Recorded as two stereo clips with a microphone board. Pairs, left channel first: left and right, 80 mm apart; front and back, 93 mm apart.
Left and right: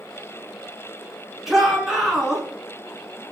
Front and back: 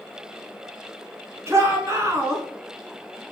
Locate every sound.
1.5 s a shout: 175° right, 1.3 m